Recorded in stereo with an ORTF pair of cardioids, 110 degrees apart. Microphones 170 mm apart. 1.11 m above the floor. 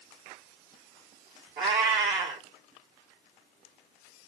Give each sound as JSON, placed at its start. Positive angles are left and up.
{"t": 1.6, "sound": "a cat meowing", "azimuth_deg": -70, "distance_m": 1.5}